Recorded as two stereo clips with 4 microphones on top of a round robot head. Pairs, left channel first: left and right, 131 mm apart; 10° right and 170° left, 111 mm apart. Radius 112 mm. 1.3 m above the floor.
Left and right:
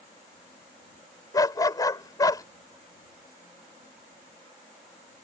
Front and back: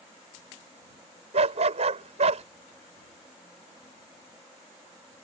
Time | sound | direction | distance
1.3 | a dog barking | 150° left | ?